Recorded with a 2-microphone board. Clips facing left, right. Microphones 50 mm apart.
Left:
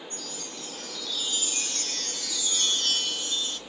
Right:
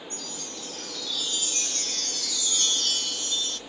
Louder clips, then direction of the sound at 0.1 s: Right 1 dB; 5° left (ahead or behind).